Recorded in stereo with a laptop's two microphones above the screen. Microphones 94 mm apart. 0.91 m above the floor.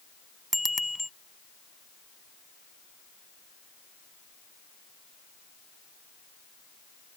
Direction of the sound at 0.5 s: Centre (ahead or behind).